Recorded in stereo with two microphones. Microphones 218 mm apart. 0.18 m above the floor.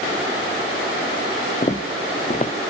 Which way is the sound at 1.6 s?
30° left (ahead or behind).